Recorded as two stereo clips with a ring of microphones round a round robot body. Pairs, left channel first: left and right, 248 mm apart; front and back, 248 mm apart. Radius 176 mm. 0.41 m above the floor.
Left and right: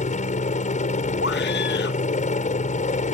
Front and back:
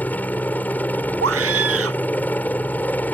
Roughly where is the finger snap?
I don't hear a finger snap.